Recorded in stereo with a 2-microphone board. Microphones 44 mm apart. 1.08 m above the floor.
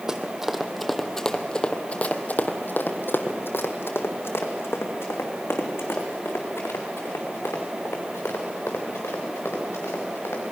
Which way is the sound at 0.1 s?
15° right (ahead or behind).